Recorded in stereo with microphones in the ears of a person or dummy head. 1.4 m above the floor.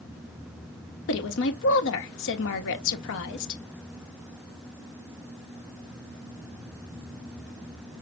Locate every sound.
1.1 s a woman speaking: 75° left (ahead or behind), 1.2 m